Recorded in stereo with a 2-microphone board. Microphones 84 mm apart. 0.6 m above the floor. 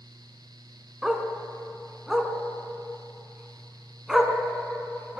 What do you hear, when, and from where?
1.0 s a dog barking: 5° right (ahead or behind), 2 m